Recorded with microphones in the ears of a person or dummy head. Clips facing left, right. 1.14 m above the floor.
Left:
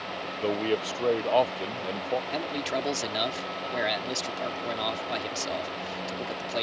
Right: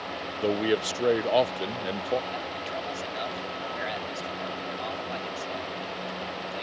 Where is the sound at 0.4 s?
10° right (ahead or behind).